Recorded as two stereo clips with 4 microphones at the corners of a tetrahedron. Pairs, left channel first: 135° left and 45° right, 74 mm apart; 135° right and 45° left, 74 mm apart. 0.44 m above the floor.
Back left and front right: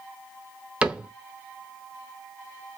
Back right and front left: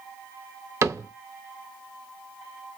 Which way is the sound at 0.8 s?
25° left.